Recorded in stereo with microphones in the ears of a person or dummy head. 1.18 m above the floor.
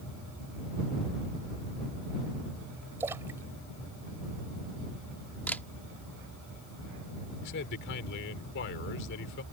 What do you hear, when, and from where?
3.0 s a splash: 10° right (ahead or behind)
5.5 s a camera shutter: 10° left (ahead or behind)
7.4 s a man speaking: 65° left (ahead or behind)